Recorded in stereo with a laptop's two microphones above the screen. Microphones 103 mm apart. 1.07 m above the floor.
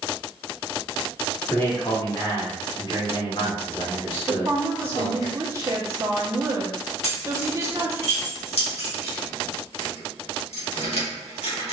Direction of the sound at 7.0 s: 80° left.